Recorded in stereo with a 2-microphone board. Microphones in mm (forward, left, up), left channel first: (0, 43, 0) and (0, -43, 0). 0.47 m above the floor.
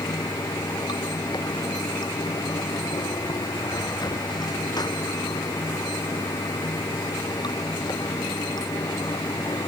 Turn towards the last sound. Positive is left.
turn(degrees=55)  # may be behind; listen again after turning